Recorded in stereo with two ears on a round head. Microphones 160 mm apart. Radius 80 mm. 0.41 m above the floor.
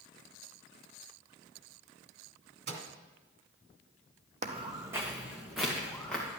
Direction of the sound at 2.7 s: 60° right (ahead or behind).